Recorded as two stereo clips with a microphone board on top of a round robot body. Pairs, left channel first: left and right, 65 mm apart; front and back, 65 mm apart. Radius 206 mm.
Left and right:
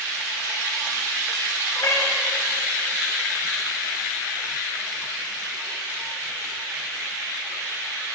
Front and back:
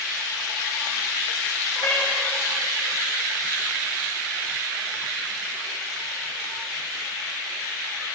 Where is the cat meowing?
40° left, 4 m.